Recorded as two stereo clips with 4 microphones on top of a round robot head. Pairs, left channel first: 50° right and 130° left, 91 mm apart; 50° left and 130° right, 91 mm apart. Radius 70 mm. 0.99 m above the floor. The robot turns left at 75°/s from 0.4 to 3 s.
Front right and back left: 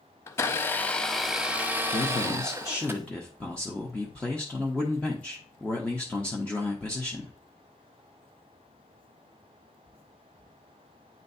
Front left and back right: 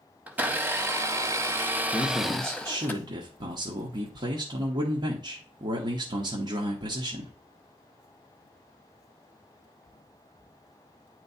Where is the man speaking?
40° right, 1.1 m; by 7.3 s 125° right, 1.1 m.